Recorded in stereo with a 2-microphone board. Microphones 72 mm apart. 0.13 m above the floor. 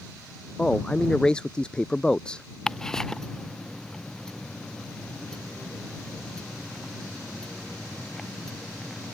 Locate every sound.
0.6 s a man speaking: 15° left (ahead or behind)
2.7 s ticking: 10° left (ahead or behind)